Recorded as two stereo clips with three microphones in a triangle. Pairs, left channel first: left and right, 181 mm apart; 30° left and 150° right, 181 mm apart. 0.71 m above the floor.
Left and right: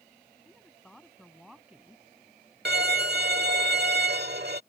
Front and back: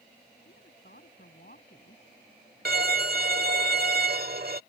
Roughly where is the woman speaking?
Ahead.